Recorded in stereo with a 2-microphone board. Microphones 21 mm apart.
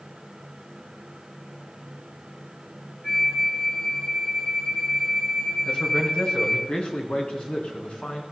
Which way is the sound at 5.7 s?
70° left (ahead or behind).